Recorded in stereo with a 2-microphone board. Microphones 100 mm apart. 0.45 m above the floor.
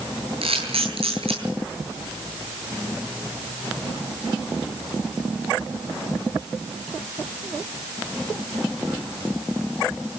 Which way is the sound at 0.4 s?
70° right (ahead or behind).